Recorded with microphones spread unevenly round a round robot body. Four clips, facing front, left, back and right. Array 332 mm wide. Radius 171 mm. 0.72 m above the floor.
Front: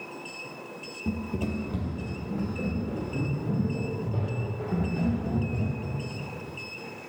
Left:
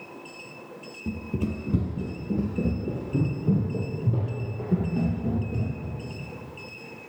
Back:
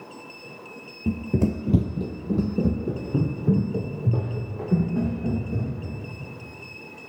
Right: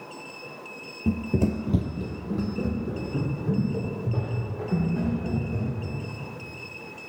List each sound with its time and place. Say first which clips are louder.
1.1 s running footsteps: right 6 dB, back 7 dB; 85° right, 0.9 m; by 6.0 s 150° left, 6.5 m